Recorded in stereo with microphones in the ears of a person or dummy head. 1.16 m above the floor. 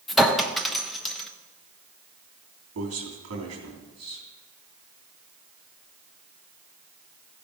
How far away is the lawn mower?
I don't hear a lawn mower.